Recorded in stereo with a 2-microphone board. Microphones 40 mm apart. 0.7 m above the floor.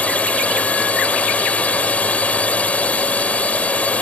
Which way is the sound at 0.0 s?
35° left (ahead or behind).